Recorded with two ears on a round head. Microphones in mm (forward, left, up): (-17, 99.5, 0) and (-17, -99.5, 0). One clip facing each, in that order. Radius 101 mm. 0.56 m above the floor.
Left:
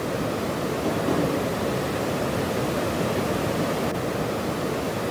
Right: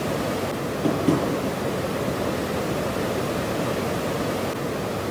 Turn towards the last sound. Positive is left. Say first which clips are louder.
# right 4 dB
turn(degrees=-30)  # may be behind; listen again after turning